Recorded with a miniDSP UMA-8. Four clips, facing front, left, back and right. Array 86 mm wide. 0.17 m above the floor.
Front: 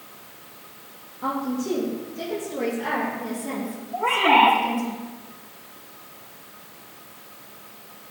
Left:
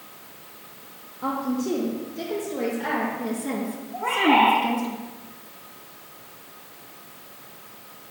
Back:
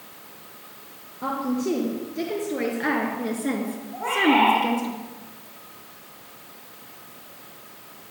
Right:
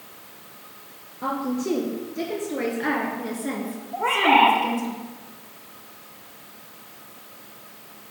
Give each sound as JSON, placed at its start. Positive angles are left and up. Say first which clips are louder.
{"t": 1.2, "sound": "a woman speaking", "louder": "even, back 1 dB", "azimuth_deg": -125, "distance_m": 3.0}
{"t": 3.9, "sound": "a bird", "louder": "right 1 dB, front 2 dB", "azimuth_deg": -75, "distance_m": 4.0}